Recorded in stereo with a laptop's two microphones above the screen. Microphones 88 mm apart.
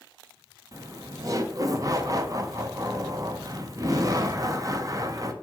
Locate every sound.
0.7 s laughter: 40° right (ahead or behind), 0.7 m